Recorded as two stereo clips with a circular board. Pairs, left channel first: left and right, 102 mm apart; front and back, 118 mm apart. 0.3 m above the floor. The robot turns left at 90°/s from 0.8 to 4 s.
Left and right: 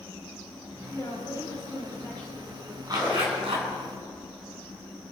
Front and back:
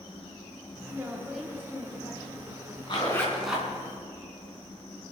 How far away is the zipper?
About 3.5 m.